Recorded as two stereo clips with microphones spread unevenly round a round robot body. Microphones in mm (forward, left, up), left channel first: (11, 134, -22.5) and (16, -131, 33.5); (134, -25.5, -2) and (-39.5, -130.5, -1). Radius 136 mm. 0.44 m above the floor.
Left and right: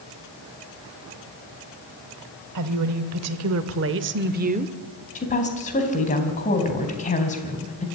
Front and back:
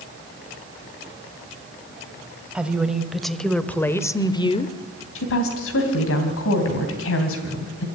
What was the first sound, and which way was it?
A woman speaking, 65° right.